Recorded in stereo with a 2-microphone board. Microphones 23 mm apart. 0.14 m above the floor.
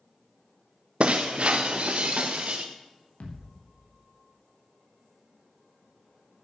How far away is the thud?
About 5 m.